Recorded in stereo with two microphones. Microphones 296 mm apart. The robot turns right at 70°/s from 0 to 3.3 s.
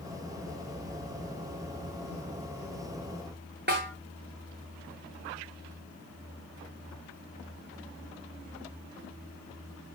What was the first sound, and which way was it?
A snare drum, 35° right (ahead or behind).